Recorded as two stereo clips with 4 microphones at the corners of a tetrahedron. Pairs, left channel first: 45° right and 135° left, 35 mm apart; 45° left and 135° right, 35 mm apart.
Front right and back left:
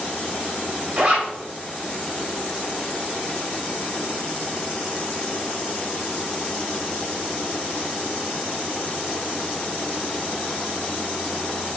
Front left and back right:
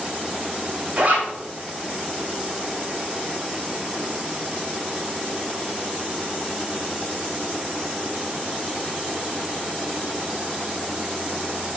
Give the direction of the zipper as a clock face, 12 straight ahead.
6 o'clock.